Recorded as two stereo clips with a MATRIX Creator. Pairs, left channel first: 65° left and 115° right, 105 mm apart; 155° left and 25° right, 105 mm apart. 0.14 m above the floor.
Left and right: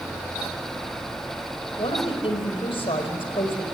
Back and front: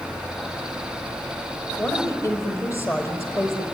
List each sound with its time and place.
1.8 s a woman speaking: 100° left, 4.5 m